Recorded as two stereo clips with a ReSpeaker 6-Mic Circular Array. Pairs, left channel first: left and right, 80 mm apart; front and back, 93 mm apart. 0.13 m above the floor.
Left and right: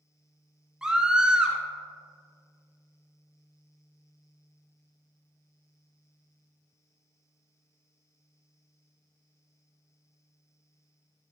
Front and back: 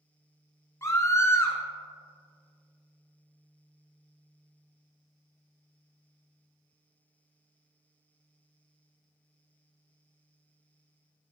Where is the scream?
20° right, 1.4 m.